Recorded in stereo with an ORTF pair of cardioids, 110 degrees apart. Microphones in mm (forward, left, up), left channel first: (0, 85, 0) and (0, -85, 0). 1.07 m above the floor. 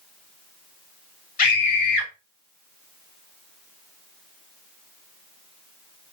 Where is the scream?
55° left, 1.8 m.